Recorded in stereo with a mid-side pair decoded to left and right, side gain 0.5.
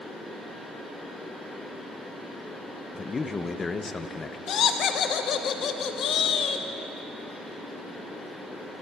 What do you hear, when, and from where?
0.0 s a fan: 5° left, 5 m
2.9 s a man speaking: 30° left, 0.9 m
4.5 s laughter: 60° left, 1.3 m